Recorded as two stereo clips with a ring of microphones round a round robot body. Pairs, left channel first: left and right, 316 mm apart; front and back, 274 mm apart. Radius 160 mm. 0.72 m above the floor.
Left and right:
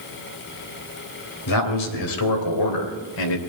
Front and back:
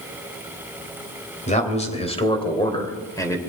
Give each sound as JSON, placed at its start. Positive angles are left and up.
{"t": 1.5, "sound": "a man speaking", "azimuth_deg": 65, "distance_m": 3.0}